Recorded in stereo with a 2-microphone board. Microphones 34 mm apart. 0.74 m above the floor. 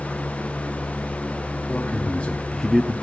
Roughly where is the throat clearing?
I don't hear throat clearing.